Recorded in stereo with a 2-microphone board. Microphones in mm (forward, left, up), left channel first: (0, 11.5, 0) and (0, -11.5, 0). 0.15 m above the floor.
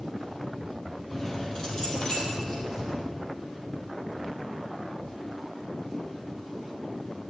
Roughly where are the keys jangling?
Left.